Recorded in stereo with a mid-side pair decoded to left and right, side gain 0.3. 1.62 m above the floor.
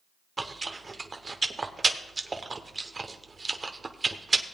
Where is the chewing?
40° right, 0.9 m.